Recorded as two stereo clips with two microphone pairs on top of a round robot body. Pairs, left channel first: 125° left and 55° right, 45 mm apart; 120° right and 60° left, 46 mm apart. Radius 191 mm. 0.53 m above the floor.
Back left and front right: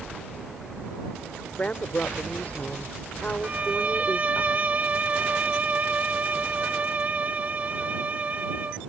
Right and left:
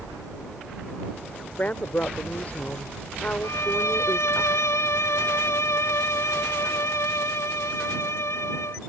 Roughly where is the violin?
Behind right.